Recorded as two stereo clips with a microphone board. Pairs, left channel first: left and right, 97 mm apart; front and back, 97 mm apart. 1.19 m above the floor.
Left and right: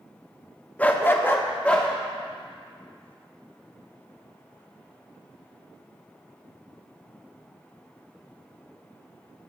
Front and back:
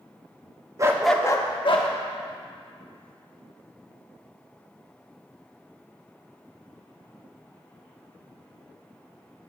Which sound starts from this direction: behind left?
A dog barking, at 0.8 s.